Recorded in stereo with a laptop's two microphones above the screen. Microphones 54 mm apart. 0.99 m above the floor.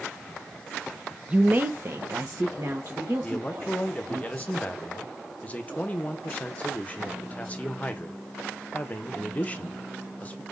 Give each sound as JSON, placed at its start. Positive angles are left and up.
{"t": 1.3, "sound": "a woman speaking", "side_deg": -25, "distance_m": 0.7}
{"t": 3.2, "sound": "a man speaking", "side_deg": 25, "distance_m": 0.7}